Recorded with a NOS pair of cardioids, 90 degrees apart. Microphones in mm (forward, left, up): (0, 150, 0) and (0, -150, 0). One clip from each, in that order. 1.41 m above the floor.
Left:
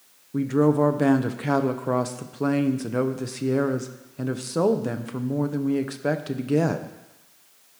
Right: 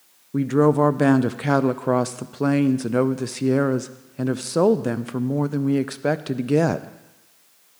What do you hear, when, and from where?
0.3 s a woman speaking: 20° right, 0.6 m